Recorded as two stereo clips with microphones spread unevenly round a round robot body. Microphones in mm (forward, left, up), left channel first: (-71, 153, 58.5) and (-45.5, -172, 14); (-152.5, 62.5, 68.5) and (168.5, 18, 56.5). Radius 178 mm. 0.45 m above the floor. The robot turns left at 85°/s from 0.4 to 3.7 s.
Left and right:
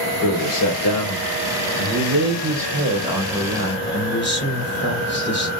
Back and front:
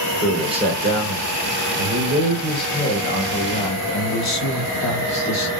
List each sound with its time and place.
0.2 s a man speaking: 70° left, 2 m; by 5.5 s 150° left, 2 m